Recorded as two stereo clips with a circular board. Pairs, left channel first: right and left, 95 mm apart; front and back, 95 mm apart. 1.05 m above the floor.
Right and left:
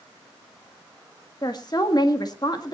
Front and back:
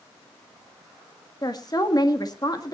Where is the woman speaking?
45° right, 1.7 m.